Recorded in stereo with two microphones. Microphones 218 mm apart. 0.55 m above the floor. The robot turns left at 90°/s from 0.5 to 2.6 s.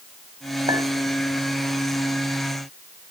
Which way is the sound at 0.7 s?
20° right (ahead or behind).